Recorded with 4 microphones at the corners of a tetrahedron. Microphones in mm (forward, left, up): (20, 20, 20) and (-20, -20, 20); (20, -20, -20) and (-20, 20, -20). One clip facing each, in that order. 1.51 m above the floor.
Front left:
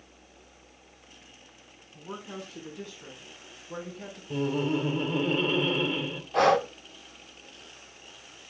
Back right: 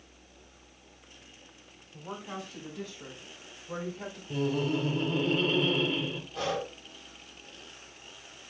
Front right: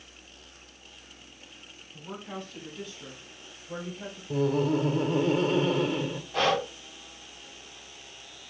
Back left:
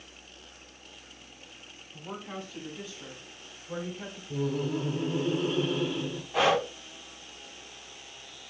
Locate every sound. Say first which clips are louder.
1.9 s a woman speaking: even, even; 145° right, 6 m
4.3 s laughter: front left 2 dB, front right 5 dB; 35° right, 1.7 m
6.3 s breathing: front left 12 dB, back left 1 dB; 55° left, 0.7 m